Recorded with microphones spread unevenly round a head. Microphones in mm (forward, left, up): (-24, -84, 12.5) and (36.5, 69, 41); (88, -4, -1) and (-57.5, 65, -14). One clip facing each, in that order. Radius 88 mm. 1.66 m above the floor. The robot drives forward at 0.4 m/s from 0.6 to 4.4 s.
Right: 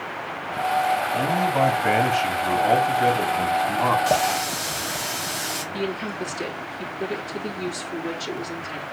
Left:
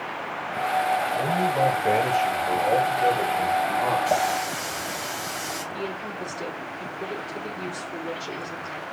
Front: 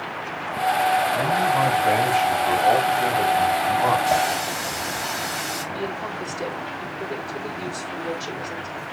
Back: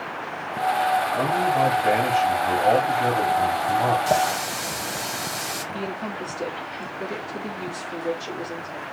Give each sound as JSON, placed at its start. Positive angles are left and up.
{"t": 1.1, "sound": "a man speaking", "azimuth_deg": -130, "distance_m": 4.0}
{"t": 4.1, "sound": "a running tap", "azimuth_deg": -160, "distance_m": 4.5}
{"t": 5.7, "sound": "a woman speaking", "azimuth_deg": -135, "distance_m": 4.0}